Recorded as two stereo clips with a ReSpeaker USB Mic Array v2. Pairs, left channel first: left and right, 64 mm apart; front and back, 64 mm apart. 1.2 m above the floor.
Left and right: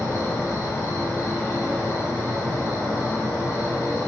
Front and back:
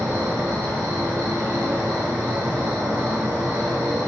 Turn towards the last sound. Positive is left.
turn(degrees=130)